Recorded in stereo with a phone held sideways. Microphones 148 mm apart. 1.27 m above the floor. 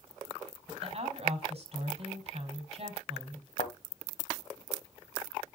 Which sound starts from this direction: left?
A thud, at 3.6 s.